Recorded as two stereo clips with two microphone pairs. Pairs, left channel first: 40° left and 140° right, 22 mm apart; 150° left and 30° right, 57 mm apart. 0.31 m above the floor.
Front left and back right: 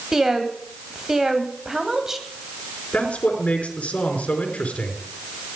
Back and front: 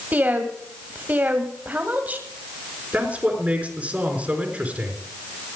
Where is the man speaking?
35° left, 4.5 m.